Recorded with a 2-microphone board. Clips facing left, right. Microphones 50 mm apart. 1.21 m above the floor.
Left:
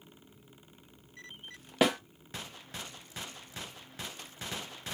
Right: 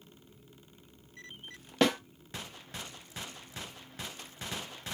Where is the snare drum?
10° left (ahead or behind), 0.6 m.